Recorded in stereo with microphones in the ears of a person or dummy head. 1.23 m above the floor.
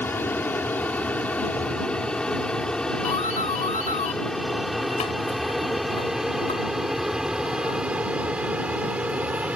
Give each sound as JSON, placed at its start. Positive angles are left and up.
{"t": 0.0, "sound": "an aircraft", "side_deg": 10}
{"t": 3.0, "sound": "a doorbell", "side_deg": 30}